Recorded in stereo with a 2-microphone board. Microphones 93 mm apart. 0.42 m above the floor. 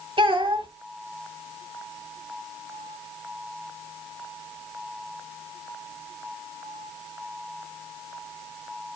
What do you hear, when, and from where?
0.2 s a child speaking: 70° right (ahead or behind), 1.7 m